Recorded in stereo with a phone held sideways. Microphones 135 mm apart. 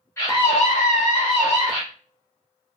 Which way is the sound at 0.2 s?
20° left (ahead or behind).